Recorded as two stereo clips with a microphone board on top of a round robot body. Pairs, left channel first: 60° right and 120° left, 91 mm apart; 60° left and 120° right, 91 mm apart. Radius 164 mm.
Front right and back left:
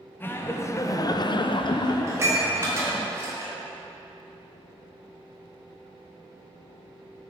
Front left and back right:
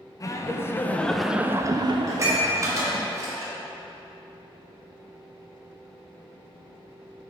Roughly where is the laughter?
Ahead.